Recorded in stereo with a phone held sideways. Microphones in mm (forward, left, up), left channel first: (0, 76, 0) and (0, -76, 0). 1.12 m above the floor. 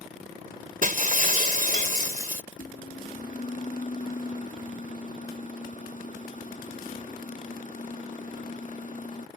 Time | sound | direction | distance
0.8 | breaking glass | 65° right (ahead or behind) | ?
2.5 | a microwave | 55° left (ahead or behind) | ?